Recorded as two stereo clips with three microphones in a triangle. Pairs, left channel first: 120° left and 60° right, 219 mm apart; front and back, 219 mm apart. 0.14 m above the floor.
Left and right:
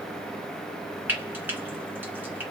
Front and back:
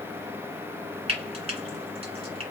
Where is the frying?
135° right, 2 m.